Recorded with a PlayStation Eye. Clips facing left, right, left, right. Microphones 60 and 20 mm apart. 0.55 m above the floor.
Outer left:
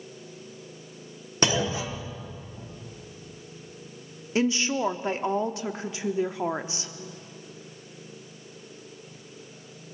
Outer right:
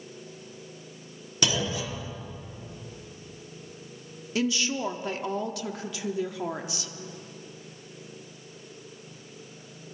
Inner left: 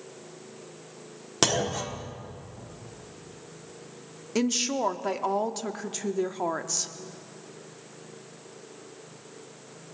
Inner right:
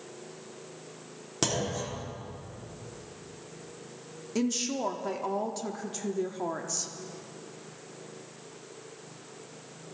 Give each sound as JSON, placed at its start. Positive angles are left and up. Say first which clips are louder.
{"t": 1.4, "sound": "a clunk", "louder": "outer left 3 dB, inner left 5 dB", "side_deg": 35, "distance_m": 1.3}
{"t": 4.3, "sound": "a woman speaking", "louder": "outer left 3 dB, inner left 4 dB", "side_deg": 30, "distance_m": 0.8}